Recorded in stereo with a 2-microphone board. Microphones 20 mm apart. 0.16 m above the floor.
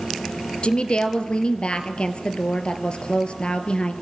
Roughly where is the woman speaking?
Left.